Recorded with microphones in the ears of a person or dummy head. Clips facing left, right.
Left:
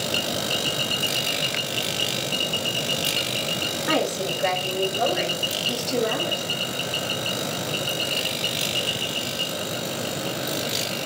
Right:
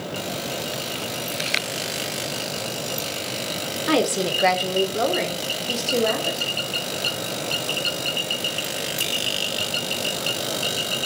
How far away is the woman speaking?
About 0.6 m.